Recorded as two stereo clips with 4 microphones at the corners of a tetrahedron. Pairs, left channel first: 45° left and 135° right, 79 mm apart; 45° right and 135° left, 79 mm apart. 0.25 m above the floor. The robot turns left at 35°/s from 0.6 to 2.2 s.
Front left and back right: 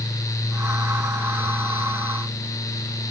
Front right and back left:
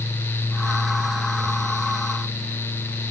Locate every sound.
Only background noise.